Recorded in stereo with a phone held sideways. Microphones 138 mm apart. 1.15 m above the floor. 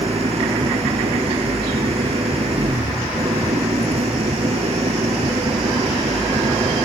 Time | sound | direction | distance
0.0 | an engine running | 50° right (ahead or behind) | ?